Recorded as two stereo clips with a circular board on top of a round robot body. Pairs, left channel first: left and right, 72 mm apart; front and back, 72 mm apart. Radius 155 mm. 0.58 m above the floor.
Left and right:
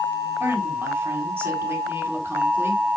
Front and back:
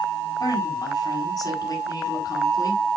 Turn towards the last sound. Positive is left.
turn(degrees=-35)